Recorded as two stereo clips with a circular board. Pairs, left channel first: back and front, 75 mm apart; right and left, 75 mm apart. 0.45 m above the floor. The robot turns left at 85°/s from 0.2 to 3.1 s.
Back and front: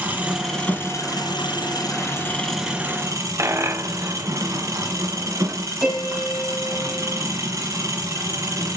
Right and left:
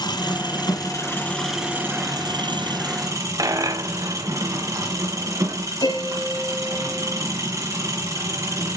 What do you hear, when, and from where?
0.0 s an engine running: 70° right, 3 m; by 8.8 s 45° left, 3 m
3.4 s a dropped coin: 50° left, 0.8 m
5.8 s a piano: 85° right, 3.5 m